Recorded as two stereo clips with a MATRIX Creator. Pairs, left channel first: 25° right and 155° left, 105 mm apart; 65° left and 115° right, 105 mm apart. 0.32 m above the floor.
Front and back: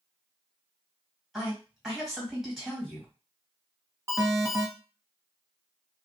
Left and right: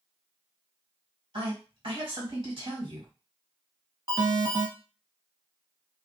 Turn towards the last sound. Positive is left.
turn(degrees=-145)